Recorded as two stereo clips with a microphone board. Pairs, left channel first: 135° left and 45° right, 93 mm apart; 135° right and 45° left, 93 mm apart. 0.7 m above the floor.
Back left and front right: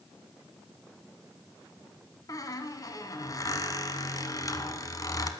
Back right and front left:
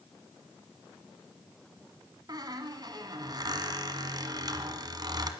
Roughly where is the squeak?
Left.